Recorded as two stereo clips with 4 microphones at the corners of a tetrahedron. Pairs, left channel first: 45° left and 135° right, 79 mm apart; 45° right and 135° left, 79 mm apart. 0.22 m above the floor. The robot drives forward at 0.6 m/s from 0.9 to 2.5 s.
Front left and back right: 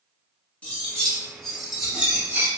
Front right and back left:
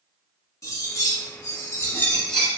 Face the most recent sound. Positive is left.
turn(degrees=-125)